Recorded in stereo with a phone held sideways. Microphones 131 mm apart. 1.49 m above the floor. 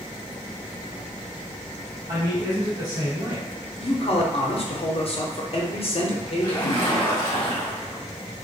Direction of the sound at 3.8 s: 50° left (ahead or behind).